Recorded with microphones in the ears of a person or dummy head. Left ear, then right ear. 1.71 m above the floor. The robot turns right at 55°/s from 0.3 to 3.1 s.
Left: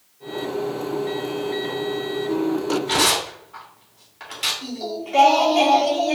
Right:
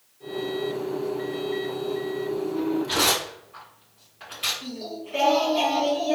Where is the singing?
30° left (ahead or behind), 1.4 m.